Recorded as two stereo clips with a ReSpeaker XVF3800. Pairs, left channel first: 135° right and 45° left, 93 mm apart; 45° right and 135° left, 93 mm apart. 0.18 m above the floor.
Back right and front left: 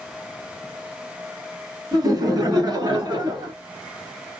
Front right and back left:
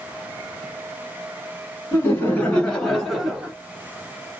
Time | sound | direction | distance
1.9 | laughter | 15° left | 1.8 m